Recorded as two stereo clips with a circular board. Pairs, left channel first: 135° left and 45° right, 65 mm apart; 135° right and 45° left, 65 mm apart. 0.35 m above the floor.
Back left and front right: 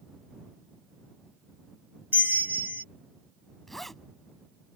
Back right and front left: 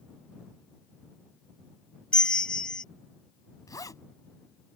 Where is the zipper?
140° right.